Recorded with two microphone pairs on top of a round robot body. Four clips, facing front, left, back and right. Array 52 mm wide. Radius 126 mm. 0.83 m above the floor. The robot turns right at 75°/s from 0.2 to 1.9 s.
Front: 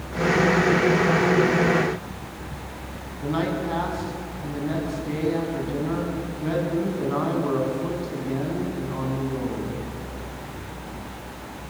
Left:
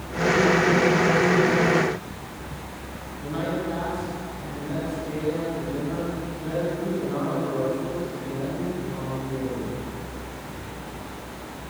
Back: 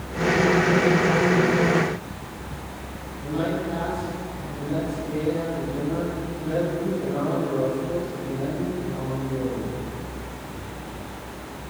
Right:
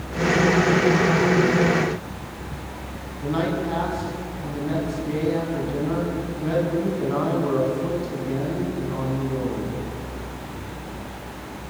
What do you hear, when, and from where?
3.2 s a man speaking: 25° right, 8.5 m